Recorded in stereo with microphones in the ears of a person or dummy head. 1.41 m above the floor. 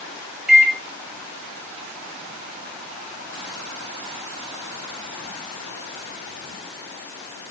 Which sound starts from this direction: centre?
A microwave, at 0.5 s.